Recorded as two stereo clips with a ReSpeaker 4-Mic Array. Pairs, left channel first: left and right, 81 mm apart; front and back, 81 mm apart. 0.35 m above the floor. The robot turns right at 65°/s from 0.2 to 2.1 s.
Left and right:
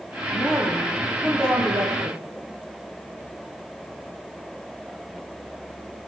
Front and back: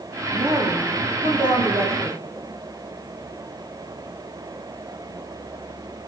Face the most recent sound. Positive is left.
turn(degrees=-110)